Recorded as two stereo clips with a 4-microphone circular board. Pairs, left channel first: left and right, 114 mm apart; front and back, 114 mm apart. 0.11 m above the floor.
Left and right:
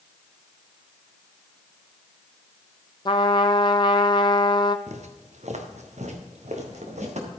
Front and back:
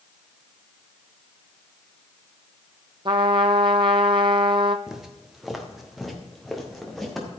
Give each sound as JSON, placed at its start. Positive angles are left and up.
{"t": 3.0, "sound": "a trumpet", "azimuth_deg": 135, "distance_m": 0.7}
{"t": 4.9, "sound": "footsteps", "azimuth_deg": -95, "distance_m": 1.9}